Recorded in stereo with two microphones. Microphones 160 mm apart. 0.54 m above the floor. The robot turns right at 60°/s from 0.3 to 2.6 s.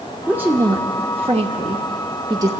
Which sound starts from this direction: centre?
A woman speaking, at 0.3 s.